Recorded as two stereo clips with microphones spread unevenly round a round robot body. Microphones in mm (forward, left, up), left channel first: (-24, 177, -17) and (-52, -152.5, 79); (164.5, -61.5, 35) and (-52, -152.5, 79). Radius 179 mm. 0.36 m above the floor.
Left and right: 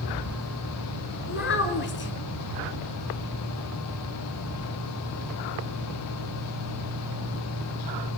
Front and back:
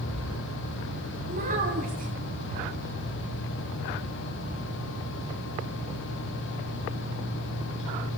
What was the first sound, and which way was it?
A child speaking, 135° left.